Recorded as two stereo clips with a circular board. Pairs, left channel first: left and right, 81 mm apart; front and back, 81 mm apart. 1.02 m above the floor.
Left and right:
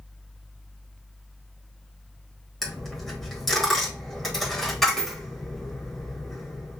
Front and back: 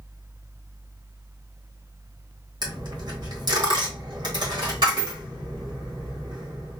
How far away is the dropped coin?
About 1.5 m.